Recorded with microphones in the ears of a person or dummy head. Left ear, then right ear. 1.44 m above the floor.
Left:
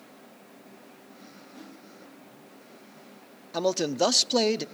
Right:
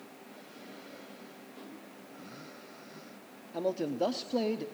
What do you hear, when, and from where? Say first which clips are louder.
1.5 s a whoosh: left 2 dB; centre (ahead or behind), 2.5 m
3.5 s a man speaking: left 6 dB; 50° left (ahead or behind), 0.6 m